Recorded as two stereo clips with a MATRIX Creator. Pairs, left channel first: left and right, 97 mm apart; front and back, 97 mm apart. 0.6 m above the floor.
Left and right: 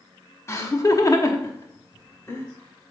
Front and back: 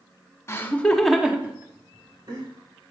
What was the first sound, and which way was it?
Laughter, 45° left.